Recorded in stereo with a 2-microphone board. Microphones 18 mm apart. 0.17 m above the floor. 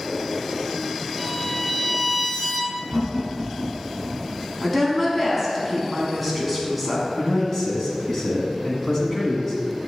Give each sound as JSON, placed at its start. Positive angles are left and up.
{"t": 1.2, "sound": "a violin", "side_deg": 15, "distance_m": 0.6}
{"t": 2.9, "sound": "laughter", "side_deg": -15, "distance_m": 1.3}
{"t": 4.6, "sound": "a woman speaking", "side_deg": 5, "distance_m": 1.4}
{"t": 7.2, "sound": "a man speaking", "side_deg": 25, "distance_m": 1.5}